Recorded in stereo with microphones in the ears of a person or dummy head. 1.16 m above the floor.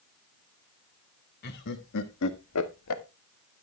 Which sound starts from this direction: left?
Laughter, at 1.4 s.